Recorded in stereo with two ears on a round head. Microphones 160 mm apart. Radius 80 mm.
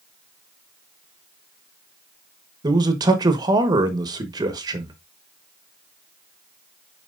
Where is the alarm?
I don't hear an alarm.